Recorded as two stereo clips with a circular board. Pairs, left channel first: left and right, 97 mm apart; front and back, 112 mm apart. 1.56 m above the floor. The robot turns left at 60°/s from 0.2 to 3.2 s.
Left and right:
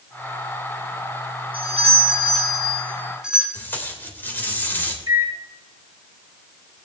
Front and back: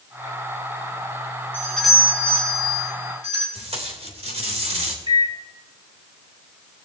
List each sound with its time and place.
1.5 s a doorbell: 70° right, 5.5 m; by 3.4 s 170° right, 5.5 m
3.5 s tape being pulled: 160° left, 3 m
5.1 s a microwave: 140° right, 2.5 m